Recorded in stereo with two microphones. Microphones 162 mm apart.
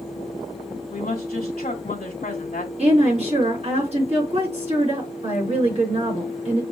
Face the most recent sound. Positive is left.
turn(degrees=-40)  # may be behind; listen again after turning